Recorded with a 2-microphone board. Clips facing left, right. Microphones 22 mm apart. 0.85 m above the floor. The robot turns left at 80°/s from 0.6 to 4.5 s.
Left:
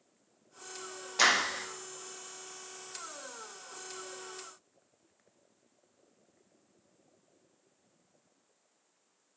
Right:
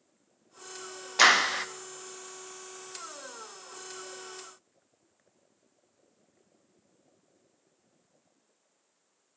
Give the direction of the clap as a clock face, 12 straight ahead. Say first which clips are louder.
Right 5 dB; 1 o'clock.